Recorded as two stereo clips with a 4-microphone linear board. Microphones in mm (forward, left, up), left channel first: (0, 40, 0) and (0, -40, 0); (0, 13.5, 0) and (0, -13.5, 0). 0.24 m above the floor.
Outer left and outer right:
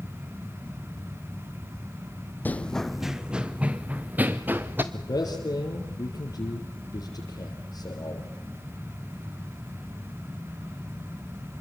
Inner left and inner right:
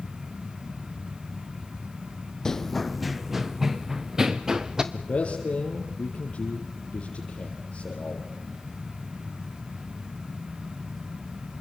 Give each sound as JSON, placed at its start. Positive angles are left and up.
{"t": 2.5, "sound": "running footsteps", "side_deg": 25, "distance_m": 0.5}
{"t": 4.9, "sound": "a man speaking", "side_deg": 55, "distance_m": 4.5}